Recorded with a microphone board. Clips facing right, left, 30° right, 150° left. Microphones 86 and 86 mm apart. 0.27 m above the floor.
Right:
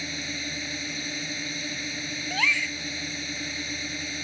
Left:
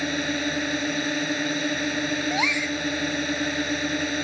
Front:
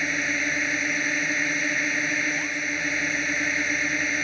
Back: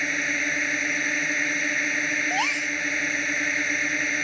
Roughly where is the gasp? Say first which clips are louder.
Left 3 dB, back 3 dB; behind.